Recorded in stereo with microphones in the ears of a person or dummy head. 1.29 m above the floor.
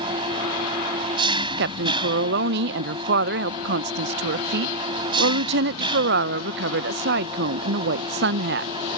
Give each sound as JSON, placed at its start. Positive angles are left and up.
{"t": 0.0, "sound": "an engine running", "side_deg": -25}
{"t": 1.6, "sound": "a woman speaking", "side_deg": -60}